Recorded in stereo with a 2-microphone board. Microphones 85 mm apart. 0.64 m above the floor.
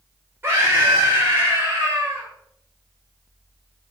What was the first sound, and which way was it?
A scream, 25° right (ahead or behind).